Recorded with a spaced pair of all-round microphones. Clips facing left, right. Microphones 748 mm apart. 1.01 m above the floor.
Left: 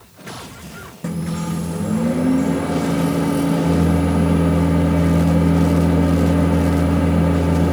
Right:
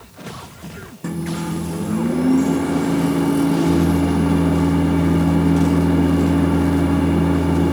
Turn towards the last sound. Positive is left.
turn(degrees=20)  # may be behind; listen again after turning